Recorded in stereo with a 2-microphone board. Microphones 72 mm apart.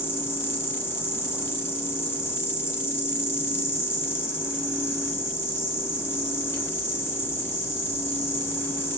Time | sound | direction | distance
0.0 | an insect | 35° left (ahead or behind) | 1.7 m